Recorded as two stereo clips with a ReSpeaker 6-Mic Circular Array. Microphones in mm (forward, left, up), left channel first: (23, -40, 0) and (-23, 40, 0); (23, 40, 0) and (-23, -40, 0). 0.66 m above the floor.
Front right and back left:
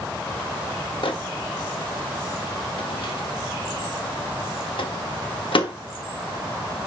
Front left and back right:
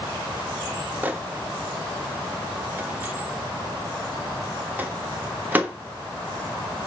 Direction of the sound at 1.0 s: 50° right.